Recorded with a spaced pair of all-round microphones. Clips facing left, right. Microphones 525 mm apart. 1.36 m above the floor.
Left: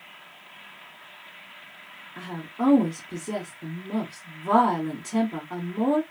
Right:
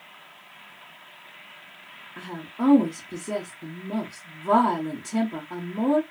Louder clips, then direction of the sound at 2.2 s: Right 1 dB; centre (ahead or behind).